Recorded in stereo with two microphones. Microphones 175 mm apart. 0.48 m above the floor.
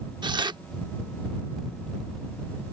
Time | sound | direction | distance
0.2 | tearing paper | 25° right (ahead or behind) | ?